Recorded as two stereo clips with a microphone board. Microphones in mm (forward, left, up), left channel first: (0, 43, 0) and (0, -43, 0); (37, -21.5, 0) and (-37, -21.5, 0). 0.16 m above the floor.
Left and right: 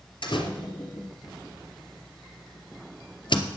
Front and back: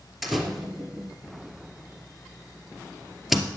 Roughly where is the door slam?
Left.